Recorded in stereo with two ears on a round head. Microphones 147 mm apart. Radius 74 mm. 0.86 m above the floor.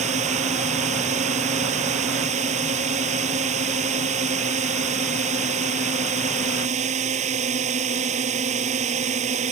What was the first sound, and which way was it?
A drone, 45° right (ahead or behind).